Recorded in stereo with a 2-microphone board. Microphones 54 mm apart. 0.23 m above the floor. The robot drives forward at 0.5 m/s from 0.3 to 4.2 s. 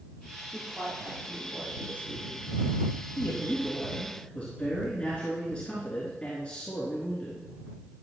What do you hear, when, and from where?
0.5 s a woman speaking: 40° right (ahead or behind), 5 m; by 2.5 s 30° right (ahead or behind), 6 m
3.2 s a man speaking: 20° left (ahead or behind), 3 m